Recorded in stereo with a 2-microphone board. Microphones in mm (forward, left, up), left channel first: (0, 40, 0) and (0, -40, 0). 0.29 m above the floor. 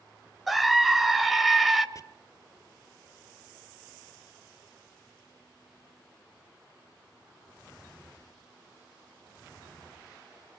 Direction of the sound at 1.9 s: 40° left (ahead or behind).